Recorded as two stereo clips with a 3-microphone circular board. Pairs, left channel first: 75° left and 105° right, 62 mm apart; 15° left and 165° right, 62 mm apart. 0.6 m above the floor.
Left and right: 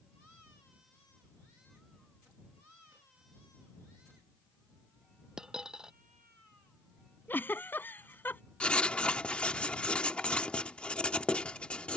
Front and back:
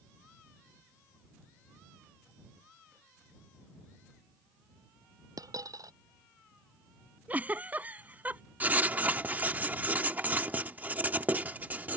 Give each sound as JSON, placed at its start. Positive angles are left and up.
{"t": 5.4, "sound": "a dropped coin", "azimuth_deg": 175}
{"t": 7.3, "sound": "a giggle", "azimuth_deg": 130}
{"t": 8.6, "sound": "writing", "azimuth_deg": 140}